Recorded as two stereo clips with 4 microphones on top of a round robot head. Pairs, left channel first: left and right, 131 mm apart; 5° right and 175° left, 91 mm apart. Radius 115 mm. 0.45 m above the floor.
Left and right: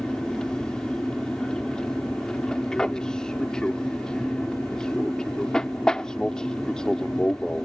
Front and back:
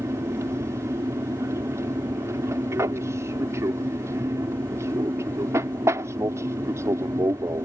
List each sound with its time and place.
0.0 s an aircraft: 170° left